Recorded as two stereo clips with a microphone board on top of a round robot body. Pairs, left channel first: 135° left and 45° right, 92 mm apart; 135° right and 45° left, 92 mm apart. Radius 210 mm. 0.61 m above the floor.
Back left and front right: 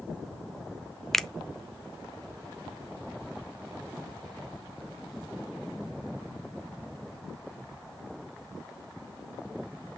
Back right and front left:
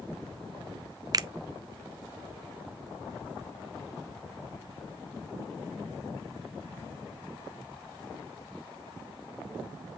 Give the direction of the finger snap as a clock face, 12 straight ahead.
10 o'clock.